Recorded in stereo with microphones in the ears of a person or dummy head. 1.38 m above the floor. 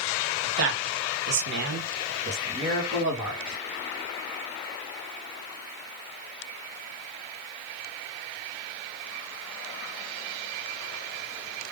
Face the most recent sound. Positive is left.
turn(degrees=-10)  # may be behind; listen again after turning